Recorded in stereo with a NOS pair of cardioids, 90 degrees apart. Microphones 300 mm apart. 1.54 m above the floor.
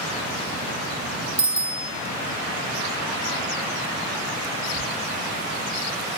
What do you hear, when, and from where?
1.4 s a bicycle bell: 30° right, 2.5 m